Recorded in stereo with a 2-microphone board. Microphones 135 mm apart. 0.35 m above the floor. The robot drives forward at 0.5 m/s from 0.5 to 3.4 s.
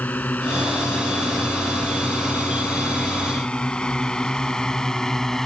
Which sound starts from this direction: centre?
A drone, at 0.0 s.